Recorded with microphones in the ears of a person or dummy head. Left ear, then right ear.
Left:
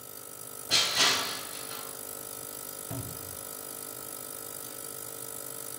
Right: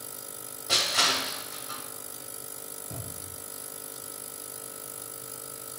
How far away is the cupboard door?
About 1.2 m.